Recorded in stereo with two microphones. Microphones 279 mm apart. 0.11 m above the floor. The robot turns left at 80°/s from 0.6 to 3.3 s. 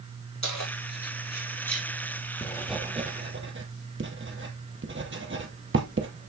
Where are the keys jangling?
75° left (ahead or behind), 3.5 m; by 1.9 s 5° right (ahead or behind), 3.5 m.